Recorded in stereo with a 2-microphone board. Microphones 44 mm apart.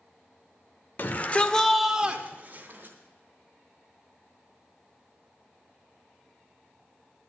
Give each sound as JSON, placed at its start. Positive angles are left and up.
{"t": 1.0, "sound": "a shout", "side_deg": 45, "distance_m": 1.0}